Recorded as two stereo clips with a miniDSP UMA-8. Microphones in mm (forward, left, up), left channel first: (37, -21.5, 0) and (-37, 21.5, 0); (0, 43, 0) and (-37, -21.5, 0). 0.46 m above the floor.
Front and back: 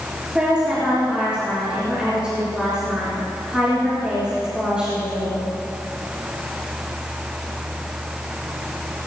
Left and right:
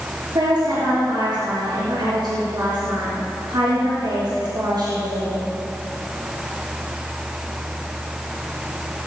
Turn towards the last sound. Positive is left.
turn(degrees=-130)